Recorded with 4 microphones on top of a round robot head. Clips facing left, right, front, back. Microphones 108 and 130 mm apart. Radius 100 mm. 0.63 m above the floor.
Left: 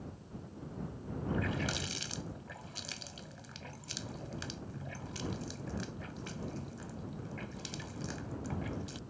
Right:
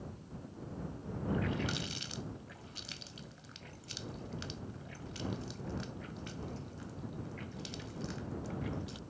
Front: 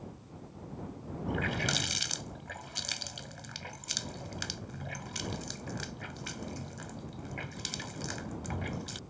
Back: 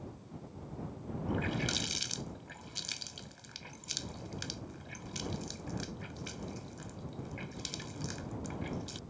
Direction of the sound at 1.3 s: 30° left.